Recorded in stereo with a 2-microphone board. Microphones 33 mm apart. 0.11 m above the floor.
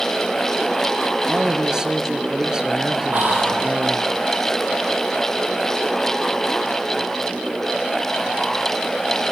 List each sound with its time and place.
1.3 s a man speaking: 20° right (ahead or behind), 2 m
3.1 s whispering: 70° right (ahead or behind), 4.5 m